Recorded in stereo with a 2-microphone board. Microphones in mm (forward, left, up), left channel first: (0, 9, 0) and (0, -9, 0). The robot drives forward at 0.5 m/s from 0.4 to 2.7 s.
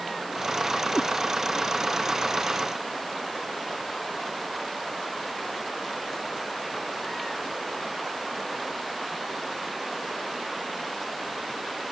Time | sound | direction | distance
0.9 | a cat meowing | 85° left | ?